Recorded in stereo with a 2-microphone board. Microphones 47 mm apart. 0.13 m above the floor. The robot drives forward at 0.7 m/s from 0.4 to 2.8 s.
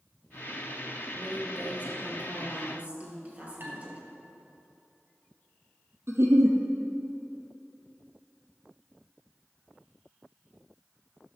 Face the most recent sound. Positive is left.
turn(degrees=-65)  # may be behind; listen again after turning